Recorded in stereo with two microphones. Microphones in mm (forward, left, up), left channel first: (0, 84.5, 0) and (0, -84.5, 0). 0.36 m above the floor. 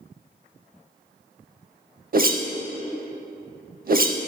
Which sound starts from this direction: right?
A whoosh, at 2.1 s.